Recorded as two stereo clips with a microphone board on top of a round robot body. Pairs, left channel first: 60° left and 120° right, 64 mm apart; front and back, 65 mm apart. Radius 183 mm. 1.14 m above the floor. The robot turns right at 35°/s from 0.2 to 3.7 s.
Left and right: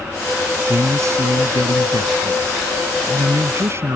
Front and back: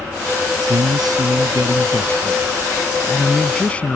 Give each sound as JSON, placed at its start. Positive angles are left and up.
{"t": 0.7, "sound": "a man speaking", "azimuth_deg": -175}